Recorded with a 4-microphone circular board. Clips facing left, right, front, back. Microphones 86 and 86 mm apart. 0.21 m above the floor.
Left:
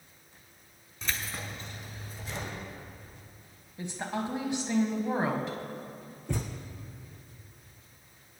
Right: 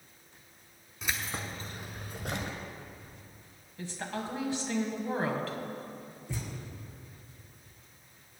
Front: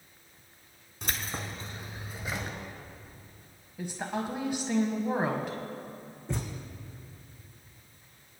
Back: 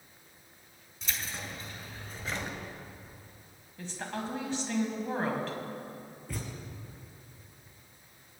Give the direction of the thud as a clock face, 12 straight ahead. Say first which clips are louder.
Left 6 dB, front 5 dB; 10 o'clock.